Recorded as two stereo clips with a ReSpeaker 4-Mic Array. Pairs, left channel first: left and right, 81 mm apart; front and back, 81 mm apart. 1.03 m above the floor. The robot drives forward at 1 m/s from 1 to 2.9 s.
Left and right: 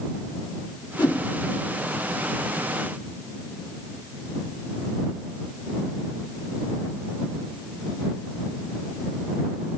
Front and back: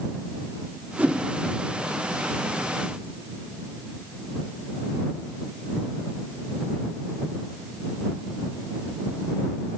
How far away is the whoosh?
About 1.0 m.